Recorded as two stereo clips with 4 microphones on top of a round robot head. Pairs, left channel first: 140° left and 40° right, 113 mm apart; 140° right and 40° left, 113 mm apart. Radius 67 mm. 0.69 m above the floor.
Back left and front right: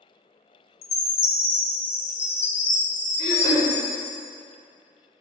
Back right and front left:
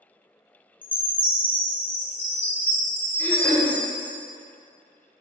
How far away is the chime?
About 0.6 m.